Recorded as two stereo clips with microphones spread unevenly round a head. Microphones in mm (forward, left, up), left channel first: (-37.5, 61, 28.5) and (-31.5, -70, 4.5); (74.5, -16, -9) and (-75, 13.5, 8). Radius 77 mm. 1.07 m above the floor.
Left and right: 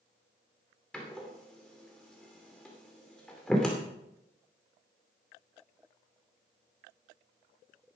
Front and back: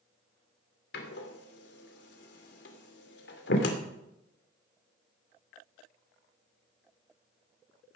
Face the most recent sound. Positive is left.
turn(degrees=10)